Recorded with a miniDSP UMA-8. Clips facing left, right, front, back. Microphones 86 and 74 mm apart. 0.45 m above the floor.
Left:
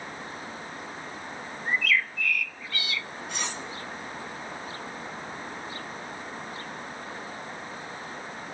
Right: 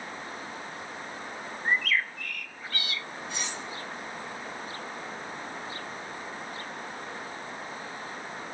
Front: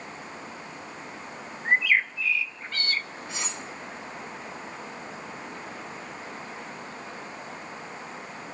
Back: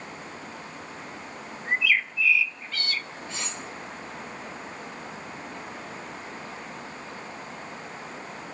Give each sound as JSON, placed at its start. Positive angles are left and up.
{"t": 1.6, "sound": "a bird", "azimuth_deg": -45, "distance_m": 0.5}
{"t": 3.3, "sound": "cutlery clinking", "azimuth_deg": 75, "distance_m": 3.5}